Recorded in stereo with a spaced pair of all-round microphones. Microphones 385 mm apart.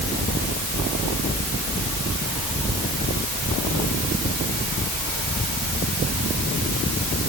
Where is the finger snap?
I don't hear a finger snap.